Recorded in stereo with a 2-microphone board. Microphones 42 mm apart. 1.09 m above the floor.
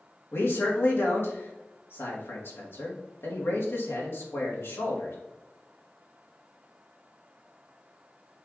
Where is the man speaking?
70° left (ahead or behind), 1.6 m.